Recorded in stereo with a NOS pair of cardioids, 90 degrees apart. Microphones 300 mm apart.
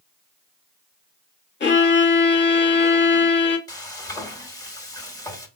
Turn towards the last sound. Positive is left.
turn(degrees=10)